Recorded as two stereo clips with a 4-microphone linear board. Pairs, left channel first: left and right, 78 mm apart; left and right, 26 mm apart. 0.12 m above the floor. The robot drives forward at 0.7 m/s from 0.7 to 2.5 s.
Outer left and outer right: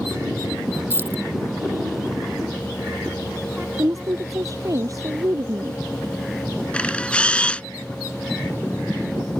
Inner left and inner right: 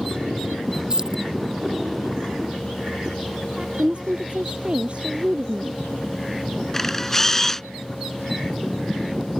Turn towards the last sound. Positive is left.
turn(degrees=15)  # may be behind; listen again after turning